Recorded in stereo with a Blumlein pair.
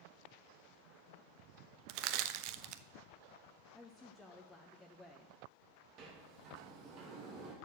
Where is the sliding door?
35° right, 2.5 m.